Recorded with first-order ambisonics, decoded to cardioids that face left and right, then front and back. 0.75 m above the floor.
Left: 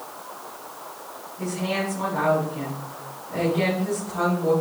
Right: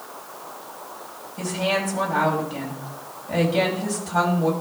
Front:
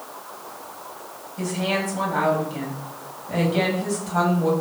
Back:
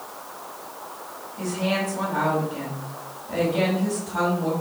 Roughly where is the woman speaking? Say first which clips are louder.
Right 4 dB, front 1 dB; right.